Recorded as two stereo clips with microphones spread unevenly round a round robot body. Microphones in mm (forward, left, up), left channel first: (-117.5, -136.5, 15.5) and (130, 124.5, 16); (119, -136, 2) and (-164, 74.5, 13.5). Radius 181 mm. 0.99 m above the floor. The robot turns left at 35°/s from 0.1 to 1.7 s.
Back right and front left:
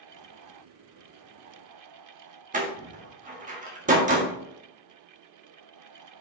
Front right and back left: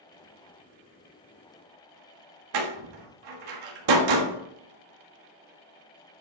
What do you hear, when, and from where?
2.5 s a door slam: 115° left, 1.4 m